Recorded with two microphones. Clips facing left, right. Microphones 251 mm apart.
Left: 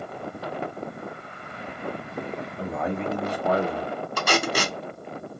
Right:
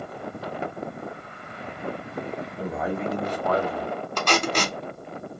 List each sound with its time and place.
2.6 s a man speaking: 15° right (ahead or behind), 1.2 m; by 3.9 s 45° left (ahead or behind), 0.7 m
4.2 s tape being pulled: 10° left (ahead or behind), 0.6 m